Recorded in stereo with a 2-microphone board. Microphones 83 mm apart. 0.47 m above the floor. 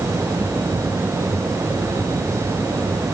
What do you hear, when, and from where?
Only background noise.